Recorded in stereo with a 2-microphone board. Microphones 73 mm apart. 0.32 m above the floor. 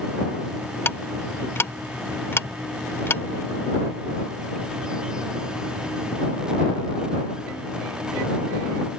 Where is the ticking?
35° left (ahead or behind).